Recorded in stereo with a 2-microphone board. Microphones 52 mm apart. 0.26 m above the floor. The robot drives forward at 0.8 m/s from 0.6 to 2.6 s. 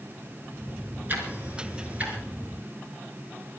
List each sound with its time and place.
1.1 s ticking: 35° right (ahead or behind), 4 m; by 2.2 s 30° right (ahead or behind), 4.5 m